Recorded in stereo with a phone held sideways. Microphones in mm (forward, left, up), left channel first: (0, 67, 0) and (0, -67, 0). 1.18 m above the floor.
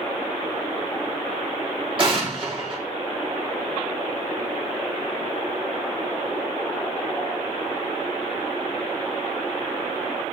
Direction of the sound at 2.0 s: 40° right (ahead or behind).